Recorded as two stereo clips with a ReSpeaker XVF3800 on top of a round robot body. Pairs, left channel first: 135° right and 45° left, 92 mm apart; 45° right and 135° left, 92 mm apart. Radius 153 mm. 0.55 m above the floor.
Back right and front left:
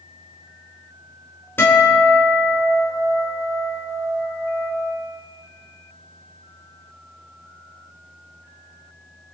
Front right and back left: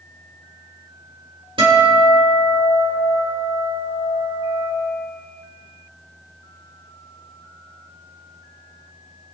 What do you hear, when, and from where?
1.6 s a guitar: 160° left, 3.5 m